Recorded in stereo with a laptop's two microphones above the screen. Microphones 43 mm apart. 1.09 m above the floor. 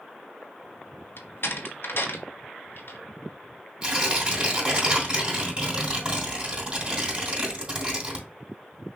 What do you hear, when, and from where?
1.2 s a door slam: 65° left (ahead or behind), 0.9 m
3.8 s tearing paper: 25° right (ahead or behind), 2.5 m